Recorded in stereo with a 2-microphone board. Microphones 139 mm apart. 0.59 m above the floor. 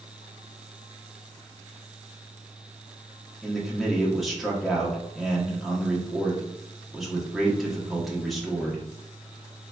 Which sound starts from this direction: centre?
A man speaking, at 3.4 s.